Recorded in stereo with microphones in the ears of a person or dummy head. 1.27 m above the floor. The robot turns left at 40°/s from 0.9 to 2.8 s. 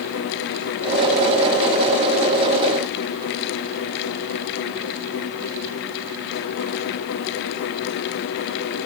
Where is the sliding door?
I don't hear a sliding door.